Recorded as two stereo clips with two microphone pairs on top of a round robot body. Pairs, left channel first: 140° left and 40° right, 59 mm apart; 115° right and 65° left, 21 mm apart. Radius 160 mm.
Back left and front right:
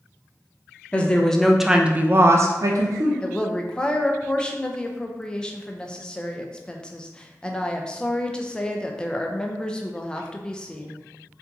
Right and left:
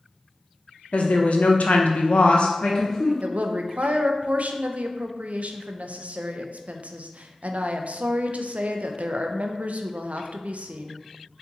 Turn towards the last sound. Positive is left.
turn(degrees=60)